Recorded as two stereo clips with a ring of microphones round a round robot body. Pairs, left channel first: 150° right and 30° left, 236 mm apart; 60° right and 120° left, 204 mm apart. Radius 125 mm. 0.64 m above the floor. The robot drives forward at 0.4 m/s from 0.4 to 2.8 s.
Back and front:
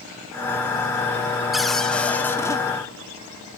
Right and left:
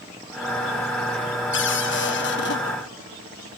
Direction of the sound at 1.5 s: 60° right.